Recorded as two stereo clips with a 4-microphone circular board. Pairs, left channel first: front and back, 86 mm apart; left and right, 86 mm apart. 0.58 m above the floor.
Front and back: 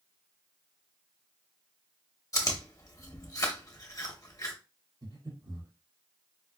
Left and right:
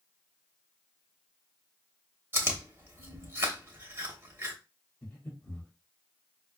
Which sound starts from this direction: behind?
Breathing, at 5.0 s.